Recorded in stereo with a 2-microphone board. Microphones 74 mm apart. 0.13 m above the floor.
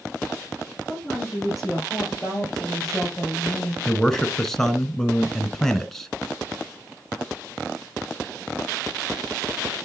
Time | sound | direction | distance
0.9 | a woman speaking | centre (ahead or behind) | 6 m
3.9 | a man speaking | 5° left (ahead or behind) | 1.2 m